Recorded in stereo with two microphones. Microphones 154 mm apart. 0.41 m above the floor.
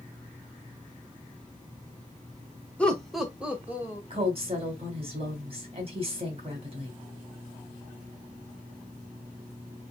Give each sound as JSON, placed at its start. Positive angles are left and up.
{"t": 2.8, "sound": "laughter", "side_deg": 10, "distance_m": 1.1}
{"t": 4.1, "sound": "a woman speaking", "side_deg": -40, "distance_m": 2.5}